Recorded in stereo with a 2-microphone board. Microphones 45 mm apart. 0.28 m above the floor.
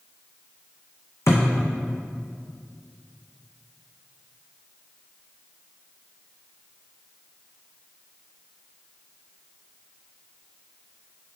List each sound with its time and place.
1.3 s a thud: 80° left, 2.5 m